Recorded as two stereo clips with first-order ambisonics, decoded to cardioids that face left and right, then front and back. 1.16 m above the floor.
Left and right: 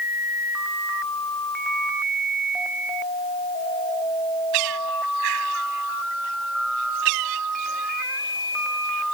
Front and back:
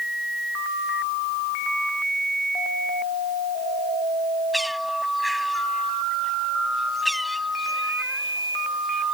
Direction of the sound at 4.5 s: 90° right.